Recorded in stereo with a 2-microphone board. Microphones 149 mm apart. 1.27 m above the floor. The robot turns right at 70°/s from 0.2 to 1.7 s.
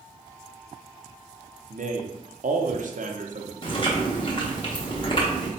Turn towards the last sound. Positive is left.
turn(degrees=35)  # may be behind; listen again after turning